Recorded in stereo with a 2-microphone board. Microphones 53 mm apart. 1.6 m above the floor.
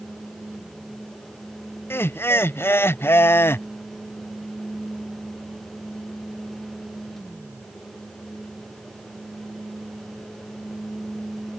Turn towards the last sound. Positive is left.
turn(degrees=45)  # may be behind; listen again after turning